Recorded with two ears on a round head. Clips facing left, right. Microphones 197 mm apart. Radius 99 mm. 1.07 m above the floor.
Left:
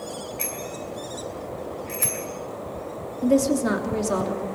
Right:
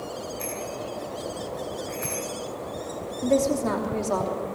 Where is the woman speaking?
20° left (ahead or behind), 3 m.